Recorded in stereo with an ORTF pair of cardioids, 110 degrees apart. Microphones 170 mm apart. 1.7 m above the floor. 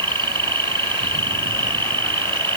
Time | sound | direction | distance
0.0 | an insect | 30° right | ?